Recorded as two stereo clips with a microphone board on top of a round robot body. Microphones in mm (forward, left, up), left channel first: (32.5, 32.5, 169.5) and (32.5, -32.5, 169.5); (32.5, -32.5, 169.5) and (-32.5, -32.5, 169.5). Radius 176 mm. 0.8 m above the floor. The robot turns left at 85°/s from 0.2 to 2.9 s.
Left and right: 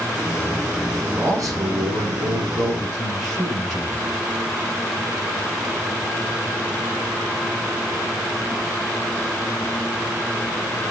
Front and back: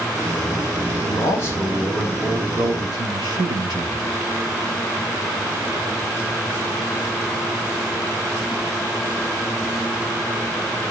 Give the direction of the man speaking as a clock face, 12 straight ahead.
1 o'clock.